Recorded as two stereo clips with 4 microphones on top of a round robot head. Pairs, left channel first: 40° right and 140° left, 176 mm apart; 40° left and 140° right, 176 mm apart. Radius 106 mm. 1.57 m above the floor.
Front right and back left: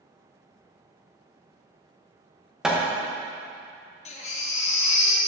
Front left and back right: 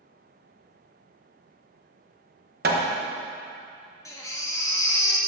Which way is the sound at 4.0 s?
20° right.